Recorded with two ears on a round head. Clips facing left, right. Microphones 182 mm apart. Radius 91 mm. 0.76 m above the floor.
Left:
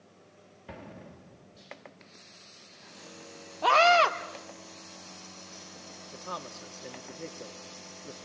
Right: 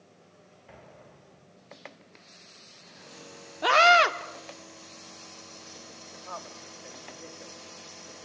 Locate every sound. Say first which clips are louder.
0.7 s an explosion: left 6 dB; 65° left (ahead or behind), 2.5 m
3.6 s a scream: even; 20° right (ahead or behind), 1.7 m
6.1 s a man speaking: left 2 dB; 45° left (ahead or behind), 1.7 m